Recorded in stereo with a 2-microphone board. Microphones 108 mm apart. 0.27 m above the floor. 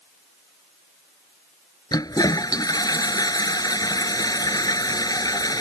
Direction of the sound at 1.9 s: 35° left (ahead or behind).